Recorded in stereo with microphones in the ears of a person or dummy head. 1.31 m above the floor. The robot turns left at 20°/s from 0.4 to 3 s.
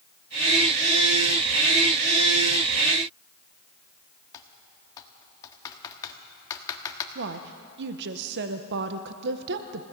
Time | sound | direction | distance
4.3 | typing on a keyboard | 20° left (ahead or behind) | 1.6 m
7.2 | a woman speaking | 65° right (ahead or behind) | 0.8 m